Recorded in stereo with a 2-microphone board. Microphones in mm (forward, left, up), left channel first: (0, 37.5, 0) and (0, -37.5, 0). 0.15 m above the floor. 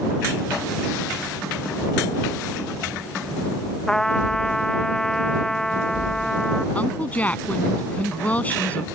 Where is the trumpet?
5° left (ahead or behind).